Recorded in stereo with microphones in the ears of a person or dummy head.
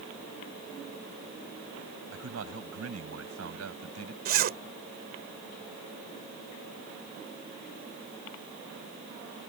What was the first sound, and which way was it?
A man speaking, 85° right.